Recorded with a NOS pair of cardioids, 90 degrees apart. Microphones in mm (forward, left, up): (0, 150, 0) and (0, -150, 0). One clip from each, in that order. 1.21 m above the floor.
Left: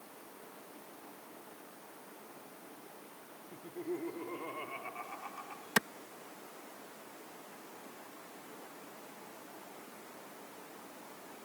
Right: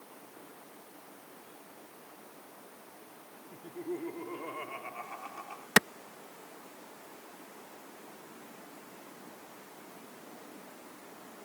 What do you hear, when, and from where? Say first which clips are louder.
3.5 s laughter: right 1 dB; 5° right; by 5.7 s 15° right
5.8 s a clap: right 7 dB; 40° right